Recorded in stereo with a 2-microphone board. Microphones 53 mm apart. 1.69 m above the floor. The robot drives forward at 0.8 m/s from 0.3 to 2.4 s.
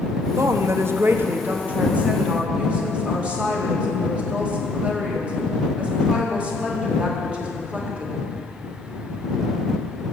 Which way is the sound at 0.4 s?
55° right (ahead or behind).